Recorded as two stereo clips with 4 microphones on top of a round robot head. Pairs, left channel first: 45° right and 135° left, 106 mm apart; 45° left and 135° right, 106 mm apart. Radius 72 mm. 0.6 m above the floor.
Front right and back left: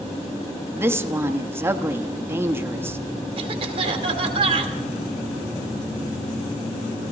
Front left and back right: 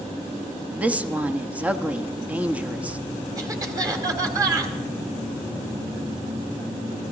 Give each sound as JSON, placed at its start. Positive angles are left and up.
{"t": 0.8, "sound": "a woman speaking", "azimuth_deg": 165, "distance_m": 1.0}
{"t": 3.4, "sound": "a cough", "azimuth_deg": 170, "distance_m": 2.0}